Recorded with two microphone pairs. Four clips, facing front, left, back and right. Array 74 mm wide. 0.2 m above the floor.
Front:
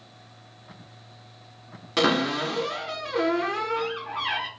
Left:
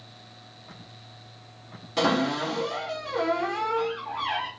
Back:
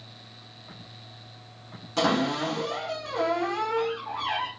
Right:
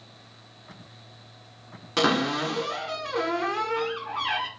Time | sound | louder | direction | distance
2.0 | a cupboard door | even, front 1 dB | 55° right | 1.1 m